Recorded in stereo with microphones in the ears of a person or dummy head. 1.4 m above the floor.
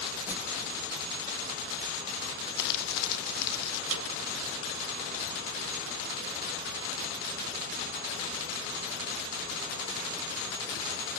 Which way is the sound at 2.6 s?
55° left (ahead or behind).